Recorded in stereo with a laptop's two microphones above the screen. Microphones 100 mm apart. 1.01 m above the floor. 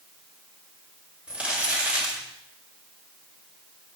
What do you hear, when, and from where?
1.3 s crumpling: 10° right (ahead or behind), 2.5 m